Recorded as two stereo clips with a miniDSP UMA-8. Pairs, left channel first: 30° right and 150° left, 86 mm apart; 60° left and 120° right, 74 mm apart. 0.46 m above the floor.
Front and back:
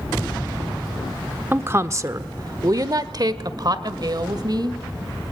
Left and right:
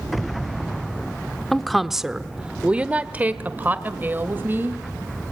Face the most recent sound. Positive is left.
turn(degrees=180)